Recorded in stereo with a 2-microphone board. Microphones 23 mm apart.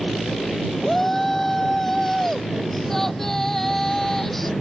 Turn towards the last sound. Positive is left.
turn(degrees=10)  # may be behind; listen again after turning